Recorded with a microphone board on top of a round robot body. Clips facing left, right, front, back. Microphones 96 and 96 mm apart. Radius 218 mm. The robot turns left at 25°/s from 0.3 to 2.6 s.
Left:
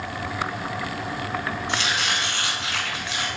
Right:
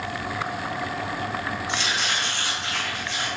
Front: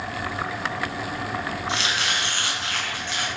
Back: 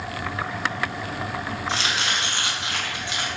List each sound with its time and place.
1.7 s chopping: 130° left, 1.0 m; by 3.3 s 105° left, 1.0 m